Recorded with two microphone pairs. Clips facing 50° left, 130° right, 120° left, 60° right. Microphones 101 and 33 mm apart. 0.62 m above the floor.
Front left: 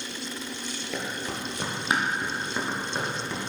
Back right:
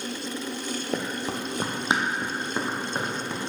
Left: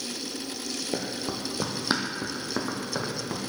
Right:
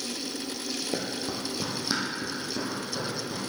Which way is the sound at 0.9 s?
155° right.